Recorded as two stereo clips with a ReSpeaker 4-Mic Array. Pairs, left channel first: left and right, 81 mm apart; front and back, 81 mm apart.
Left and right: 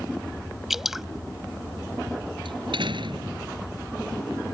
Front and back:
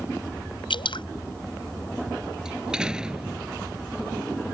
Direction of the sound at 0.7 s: 5° right.